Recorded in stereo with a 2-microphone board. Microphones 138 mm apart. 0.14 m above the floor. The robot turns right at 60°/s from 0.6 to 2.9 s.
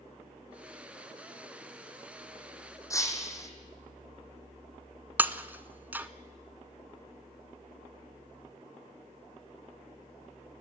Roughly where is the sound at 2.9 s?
Left.